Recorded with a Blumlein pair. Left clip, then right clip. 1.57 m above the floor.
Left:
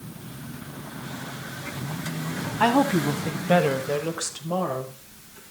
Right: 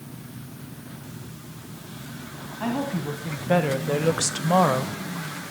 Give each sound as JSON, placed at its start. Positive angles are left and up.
{"t": 2.6, "sound": "a woman speaking", "azimuth_deg": 35, "distance_m": 1.2}